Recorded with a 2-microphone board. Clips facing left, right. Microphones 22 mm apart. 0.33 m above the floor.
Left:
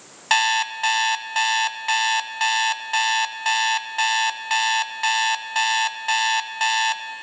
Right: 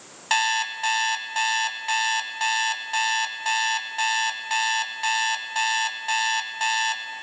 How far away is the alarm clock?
About 0.8 m.